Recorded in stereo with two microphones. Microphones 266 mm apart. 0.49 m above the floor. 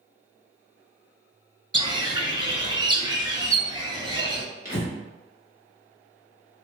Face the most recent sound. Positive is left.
turn(degrees=35)  # may be behind; listen again after turning